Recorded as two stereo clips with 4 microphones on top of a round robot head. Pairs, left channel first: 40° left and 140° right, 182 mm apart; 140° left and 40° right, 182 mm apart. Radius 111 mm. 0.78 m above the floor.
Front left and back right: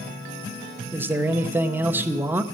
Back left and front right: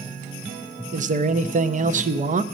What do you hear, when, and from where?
0.9 s a man speaking: 65° right, 0.7 m